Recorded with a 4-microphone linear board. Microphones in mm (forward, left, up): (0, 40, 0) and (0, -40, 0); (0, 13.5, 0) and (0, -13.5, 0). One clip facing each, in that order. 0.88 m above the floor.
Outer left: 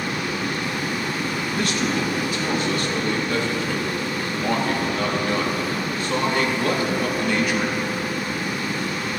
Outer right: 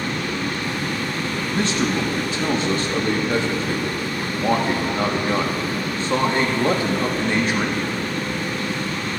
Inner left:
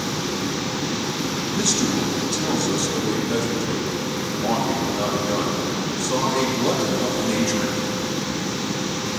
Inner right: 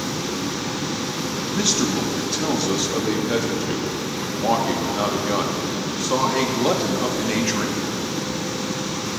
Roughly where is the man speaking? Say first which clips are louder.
Outer right 3 dB, inner right 1 dB; right.